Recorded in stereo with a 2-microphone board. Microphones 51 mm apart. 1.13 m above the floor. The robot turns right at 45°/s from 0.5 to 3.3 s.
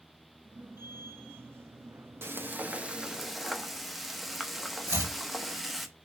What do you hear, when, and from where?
2.2 s frying: 50° right, 0.8 m; by 5.9 s straight ahead, 0.8 m
4.9 s chopping: 70° right (ahead or behind), 1.6 m